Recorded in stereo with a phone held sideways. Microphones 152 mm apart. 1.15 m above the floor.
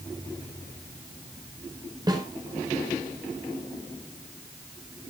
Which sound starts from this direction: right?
A snare drum, at 2.1 s.